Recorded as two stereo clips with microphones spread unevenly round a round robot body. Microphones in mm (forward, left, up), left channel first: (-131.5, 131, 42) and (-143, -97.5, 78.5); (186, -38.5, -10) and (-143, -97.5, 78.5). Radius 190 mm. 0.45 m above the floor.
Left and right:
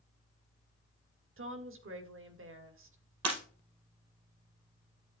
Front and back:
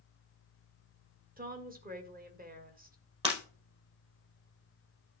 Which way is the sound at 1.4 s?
100° right.